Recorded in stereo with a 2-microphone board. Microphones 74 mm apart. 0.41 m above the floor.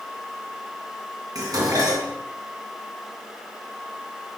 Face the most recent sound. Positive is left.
turn(degrees=-55)  # may be behind; listen again after turning